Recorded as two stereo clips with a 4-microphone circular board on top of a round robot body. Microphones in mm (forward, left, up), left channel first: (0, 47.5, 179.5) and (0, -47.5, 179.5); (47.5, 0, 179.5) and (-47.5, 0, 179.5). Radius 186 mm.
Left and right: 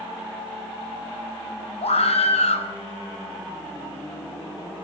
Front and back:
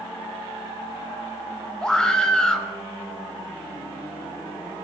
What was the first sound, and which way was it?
A scream, 80° left.